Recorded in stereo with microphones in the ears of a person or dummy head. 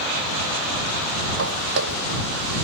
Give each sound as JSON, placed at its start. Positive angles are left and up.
{"t": 1.4, "sound": "footsteps", "side_deg": -70}